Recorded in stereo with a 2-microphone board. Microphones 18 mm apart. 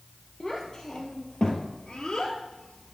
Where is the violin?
I don't hear a violin.